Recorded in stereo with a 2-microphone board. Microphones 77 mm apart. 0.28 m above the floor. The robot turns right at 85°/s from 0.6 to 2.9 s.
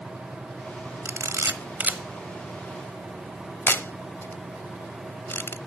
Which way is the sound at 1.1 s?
40° right (ahead or behind).